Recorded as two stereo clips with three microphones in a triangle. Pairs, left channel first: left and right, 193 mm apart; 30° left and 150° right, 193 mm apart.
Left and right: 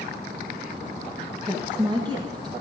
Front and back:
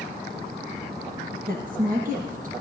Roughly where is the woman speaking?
Behind right.